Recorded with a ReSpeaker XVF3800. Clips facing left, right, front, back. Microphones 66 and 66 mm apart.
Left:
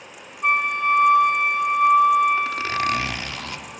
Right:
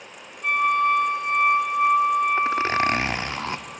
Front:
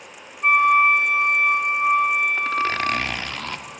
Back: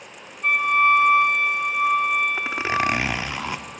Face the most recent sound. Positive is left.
turn(degrees=-115)